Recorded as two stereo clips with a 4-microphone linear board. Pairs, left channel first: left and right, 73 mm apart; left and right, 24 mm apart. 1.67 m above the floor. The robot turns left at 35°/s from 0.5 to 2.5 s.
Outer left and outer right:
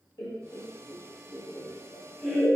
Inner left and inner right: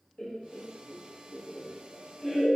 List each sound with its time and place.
0.2 s laughter: 70° left (ahead or behind), 0.5 m; by 2.6 s centre (ahead or behind), 0.5 m